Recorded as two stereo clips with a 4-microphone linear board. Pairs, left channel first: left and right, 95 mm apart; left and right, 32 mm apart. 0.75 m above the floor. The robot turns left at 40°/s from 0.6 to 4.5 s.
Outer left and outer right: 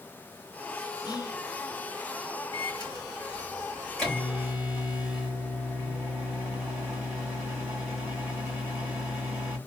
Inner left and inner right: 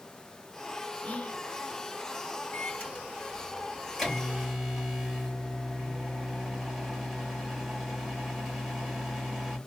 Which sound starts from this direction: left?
Whispering, at 1.0 s.